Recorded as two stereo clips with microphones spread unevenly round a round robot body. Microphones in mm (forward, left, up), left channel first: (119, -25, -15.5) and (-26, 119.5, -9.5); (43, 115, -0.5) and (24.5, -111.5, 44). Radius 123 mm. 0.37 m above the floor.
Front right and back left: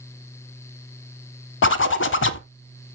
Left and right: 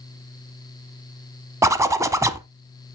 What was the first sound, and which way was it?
A zipper, 15° right.